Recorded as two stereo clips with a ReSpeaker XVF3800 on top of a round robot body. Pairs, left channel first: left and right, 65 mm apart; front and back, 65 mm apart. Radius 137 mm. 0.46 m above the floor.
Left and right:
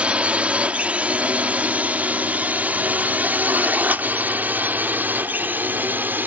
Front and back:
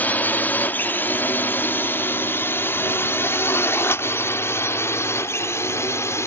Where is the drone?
35° right.